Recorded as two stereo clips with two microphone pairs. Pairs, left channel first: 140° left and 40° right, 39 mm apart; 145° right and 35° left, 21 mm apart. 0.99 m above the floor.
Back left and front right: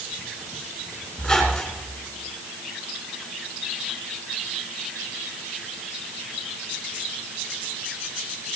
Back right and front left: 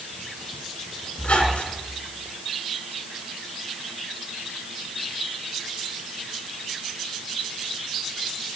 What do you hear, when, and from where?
1.2 s a squeak: 140° right, 4 m